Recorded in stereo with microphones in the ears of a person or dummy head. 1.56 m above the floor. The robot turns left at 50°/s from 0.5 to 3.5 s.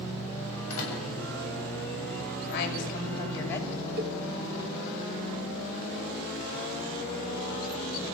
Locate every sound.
0.7 s a door slam: 80° left, 7.5 m; by 1.0 s 65° left (ahead or behind), 7.5 m
2.5 s a woman speaking: 65° left, 5.5 m; by 3.9 s 15° left, 5.5 m
4.0 s a cowbell: 50° right (ahead or behind), 1.0 m